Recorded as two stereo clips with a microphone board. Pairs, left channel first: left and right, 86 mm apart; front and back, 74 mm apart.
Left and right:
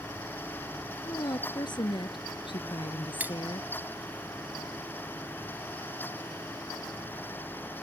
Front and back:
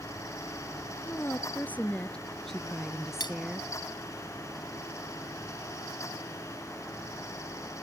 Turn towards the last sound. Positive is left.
turn(degrees=-20)